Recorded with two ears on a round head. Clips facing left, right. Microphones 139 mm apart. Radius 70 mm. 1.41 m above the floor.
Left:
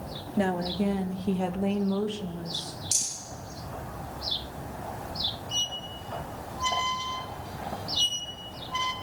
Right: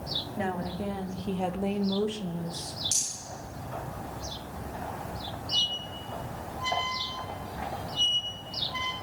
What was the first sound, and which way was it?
A woman speaking, 45° left (ahead or behind).